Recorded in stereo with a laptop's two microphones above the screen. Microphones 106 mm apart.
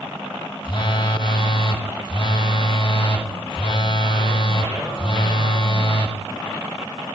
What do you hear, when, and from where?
0.6 s a phone buzzing: 50° left (ahead or behind), 1.1 m